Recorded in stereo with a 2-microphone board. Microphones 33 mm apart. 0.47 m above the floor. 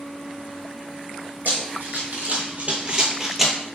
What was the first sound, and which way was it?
Running footsteps, 65° right (ahead or behind).